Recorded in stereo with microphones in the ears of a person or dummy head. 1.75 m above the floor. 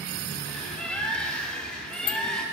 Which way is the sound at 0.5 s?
Centre (ahead or behind).